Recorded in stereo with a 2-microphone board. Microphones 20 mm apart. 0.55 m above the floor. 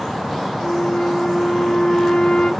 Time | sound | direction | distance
0.6 | a flute | 65° left (ahead or behind) | 0.9 m